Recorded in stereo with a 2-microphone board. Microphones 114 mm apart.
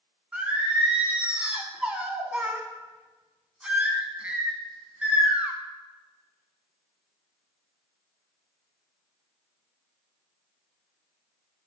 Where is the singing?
10° right (ahead or behind), 1.2 m.